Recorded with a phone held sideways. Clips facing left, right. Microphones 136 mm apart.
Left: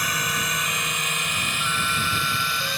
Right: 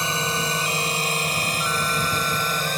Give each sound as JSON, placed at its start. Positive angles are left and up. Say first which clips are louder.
{"t": 0.0, "sound": "a drone", "louder": "right 3 dB", "side_deg": -30}